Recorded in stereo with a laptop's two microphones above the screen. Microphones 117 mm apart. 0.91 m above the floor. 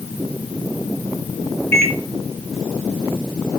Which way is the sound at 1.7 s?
20° left (ahead or behind).